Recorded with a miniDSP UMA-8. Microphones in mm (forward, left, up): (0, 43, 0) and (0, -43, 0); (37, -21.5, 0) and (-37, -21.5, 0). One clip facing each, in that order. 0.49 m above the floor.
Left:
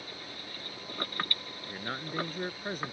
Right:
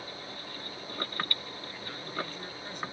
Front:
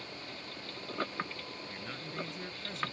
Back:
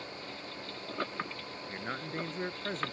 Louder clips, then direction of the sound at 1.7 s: Left 4 dB, back 9 dB; 130° left.